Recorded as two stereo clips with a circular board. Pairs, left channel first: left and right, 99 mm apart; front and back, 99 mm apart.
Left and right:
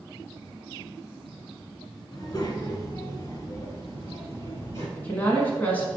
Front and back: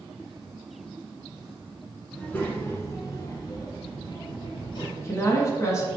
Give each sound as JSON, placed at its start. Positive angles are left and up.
{"t": 2.1, "sound": "a child speaking", "azimuth_deg": 75, "distance_m": 1.0}
{"t": 5.0, "sound": "a woman speaking", "azimuth_deg": 30, "distance_m": 1.2}